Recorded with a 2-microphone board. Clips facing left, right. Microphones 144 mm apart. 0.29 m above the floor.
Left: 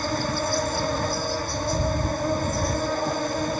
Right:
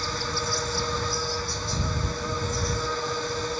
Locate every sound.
0.0 s an insect: 50° left (ahead or behind)